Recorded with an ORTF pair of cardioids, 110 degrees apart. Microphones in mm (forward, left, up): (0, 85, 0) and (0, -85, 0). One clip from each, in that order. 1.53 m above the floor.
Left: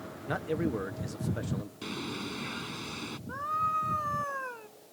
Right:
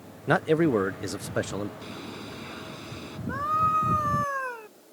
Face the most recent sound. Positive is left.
turn(degrees=-30)